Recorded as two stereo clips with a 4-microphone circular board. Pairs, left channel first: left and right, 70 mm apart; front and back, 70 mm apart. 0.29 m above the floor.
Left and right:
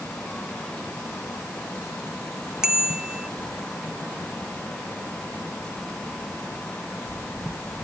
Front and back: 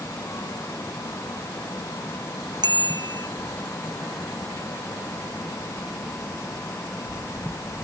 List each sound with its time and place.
2.6 s a bicycle bell: 170° right